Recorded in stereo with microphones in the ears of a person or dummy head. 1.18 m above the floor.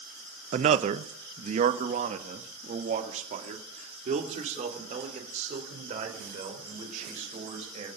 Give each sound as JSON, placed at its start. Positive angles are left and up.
{"t": 0.5, "sound": "a man speaking", "side_deg": -35, "distance_m": 0.6}